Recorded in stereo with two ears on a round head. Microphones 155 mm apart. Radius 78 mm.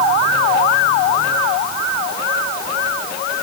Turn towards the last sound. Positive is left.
No sound to turn to.